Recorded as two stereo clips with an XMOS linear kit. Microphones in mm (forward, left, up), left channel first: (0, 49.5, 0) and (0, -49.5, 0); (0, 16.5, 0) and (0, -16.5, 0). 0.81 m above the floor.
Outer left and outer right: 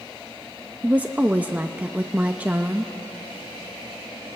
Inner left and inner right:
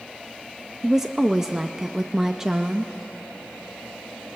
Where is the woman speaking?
15° right (ahead or behind), 0.6 m.